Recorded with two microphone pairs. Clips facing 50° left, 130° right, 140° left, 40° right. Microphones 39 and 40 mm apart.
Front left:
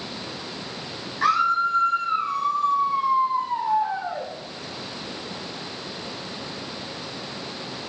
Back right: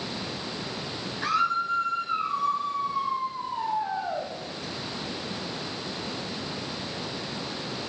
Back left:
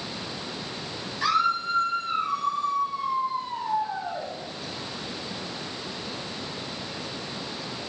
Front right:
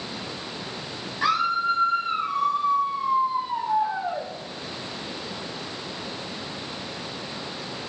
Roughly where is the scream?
Ahead left.